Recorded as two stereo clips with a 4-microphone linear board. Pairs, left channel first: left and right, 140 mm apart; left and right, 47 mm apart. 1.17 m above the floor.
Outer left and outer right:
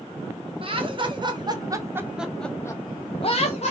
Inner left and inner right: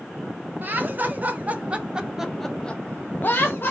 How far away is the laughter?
About 1.2 m.